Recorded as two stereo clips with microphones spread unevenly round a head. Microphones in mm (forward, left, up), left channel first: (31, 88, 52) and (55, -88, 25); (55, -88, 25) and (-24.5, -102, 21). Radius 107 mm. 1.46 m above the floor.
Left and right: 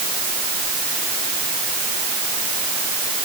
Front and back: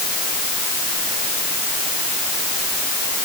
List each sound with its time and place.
Only background noise.